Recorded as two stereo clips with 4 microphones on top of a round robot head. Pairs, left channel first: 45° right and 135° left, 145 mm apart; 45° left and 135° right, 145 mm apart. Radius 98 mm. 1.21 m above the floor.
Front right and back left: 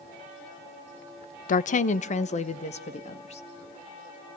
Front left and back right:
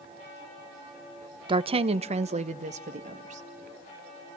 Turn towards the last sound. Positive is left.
turn(degrees=-95)